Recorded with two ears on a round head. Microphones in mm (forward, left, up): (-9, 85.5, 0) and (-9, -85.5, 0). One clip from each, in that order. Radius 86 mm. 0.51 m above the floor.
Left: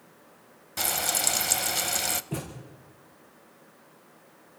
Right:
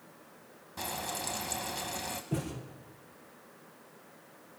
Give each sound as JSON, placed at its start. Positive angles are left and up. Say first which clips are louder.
{"t": 0.8, "sound": "frying", "louder": "left 9 dB", "side_deg": 60, "distance_m": 0.7}
{"t": 2.3, "sound": "a thud", "louder": "even", "side_deg": 30, "distance_m": 7.0}